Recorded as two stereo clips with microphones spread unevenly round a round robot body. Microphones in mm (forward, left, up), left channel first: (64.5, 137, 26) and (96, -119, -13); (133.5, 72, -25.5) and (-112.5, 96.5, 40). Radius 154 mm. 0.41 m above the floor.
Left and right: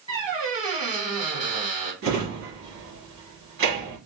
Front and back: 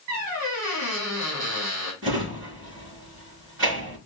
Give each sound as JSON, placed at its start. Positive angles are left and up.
{"t": 0.1, "sound": "a squeak", "azimuth_deg": -160, "distance_m": 3.0}
{"t": 2.0, "sound": "a drawer", "azimuth_deg": -130, "distance_m": 3.5}